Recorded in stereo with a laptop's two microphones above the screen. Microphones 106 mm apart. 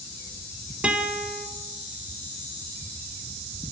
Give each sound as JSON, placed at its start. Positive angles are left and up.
{"t": 0.8, "sound": "a guitar", "side_deg": -10, "distance_m": 2.0}